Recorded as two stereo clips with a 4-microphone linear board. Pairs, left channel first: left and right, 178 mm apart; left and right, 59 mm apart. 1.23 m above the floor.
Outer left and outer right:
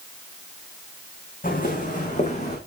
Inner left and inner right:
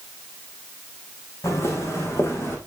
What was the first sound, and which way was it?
Footsteps, 55° left (ahead or behind).